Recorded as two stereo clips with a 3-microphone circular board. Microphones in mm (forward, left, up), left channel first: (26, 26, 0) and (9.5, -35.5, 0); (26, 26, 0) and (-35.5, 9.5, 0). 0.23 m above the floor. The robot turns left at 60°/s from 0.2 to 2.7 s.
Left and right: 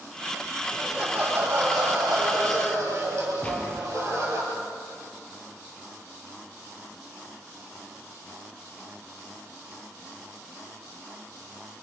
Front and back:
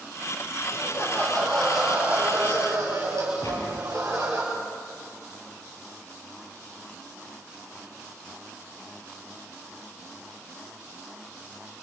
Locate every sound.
0.7 s laughter: 15° right, 5 m; by 4.4 s 135° right, 5 m
3.4 s a gunshot: 5° left, 4.5 m